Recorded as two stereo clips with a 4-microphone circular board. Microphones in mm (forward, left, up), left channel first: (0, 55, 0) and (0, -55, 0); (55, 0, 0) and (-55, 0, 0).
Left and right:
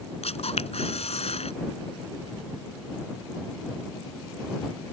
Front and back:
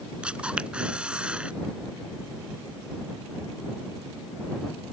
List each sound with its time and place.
0.2 s a camera shutter: 100° left